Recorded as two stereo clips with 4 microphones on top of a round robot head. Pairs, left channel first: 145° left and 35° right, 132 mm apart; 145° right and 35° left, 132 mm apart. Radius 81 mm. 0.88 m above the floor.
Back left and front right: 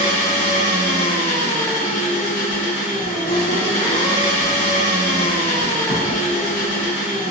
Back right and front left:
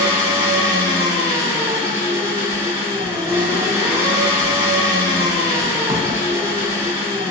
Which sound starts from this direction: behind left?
Writing, at 2.5 s.